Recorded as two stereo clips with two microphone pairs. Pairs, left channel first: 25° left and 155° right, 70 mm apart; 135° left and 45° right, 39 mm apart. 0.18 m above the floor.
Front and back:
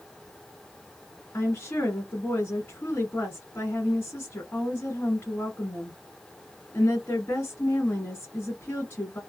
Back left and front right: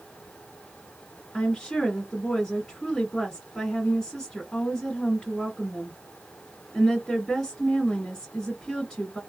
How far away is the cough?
No cough in this recording.